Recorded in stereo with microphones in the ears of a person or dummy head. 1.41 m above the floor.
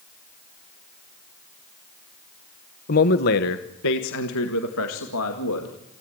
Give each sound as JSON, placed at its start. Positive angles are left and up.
{"t": 2.9, "sound": "a man speaking", "side_deg": 40, "distance_m": 1.0}